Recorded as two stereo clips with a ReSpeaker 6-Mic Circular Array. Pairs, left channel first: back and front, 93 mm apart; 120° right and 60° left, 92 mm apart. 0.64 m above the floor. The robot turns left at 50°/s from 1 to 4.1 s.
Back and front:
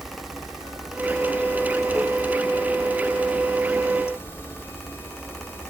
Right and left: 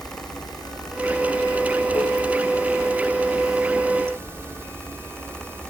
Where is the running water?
85° right, 1.7 m; by 5.7 s 120° left, 1.7 m.